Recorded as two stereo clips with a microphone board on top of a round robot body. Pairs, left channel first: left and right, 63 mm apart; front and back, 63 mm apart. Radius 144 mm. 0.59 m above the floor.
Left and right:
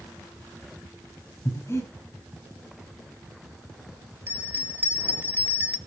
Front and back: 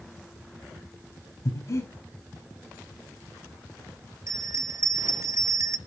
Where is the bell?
145° right, 2 m.